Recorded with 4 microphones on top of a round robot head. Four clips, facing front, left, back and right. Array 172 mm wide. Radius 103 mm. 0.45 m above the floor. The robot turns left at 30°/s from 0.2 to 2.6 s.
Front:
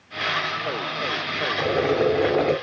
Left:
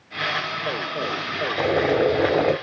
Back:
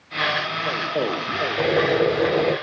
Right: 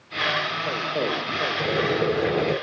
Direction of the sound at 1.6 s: 125° left.